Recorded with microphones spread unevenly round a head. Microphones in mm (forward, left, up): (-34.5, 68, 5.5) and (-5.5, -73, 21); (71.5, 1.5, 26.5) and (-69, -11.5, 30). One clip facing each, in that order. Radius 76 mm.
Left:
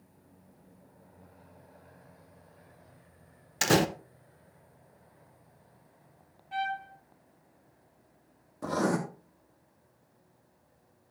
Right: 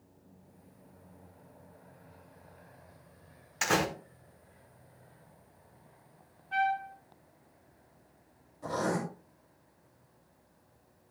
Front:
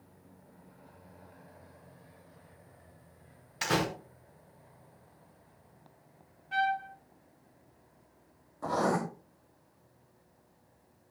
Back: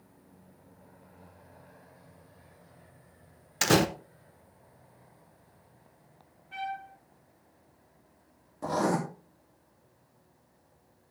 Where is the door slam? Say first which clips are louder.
Left 5 dB, back 6 dB; 150° left, 0.9 m.